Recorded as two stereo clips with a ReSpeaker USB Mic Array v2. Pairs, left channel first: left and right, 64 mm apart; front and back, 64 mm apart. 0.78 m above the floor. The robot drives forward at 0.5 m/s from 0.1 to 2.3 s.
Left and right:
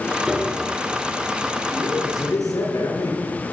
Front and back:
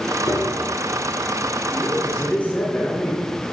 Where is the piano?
15° right, 3.5 m.